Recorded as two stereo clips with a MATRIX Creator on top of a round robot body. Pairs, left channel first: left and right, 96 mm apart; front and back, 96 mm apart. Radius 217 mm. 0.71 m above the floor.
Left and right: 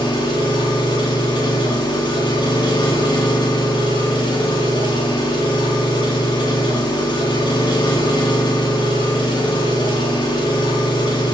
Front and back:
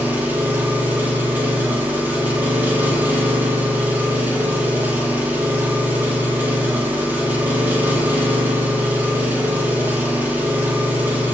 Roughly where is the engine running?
Left.